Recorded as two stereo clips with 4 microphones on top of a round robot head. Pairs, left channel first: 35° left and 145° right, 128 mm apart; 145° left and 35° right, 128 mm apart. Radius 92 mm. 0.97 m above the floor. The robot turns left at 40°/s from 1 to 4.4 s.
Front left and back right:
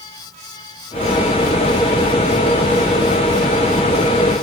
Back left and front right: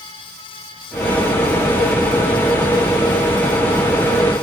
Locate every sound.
Only background noise.